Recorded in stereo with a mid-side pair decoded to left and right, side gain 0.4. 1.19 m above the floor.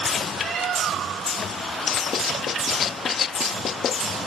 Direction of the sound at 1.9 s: 65° left.